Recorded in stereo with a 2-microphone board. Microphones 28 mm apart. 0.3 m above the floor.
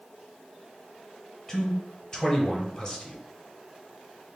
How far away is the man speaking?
About 1.1 m.